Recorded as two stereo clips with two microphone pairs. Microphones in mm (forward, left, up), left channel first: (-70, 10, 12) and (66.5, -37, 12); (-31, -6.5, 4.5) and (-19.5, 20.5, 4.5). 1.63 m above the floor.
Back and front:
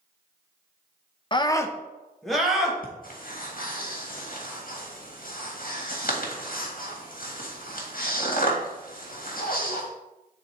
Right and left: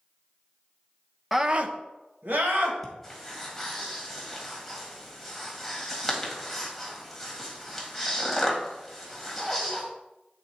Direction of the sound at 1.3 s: 145° left.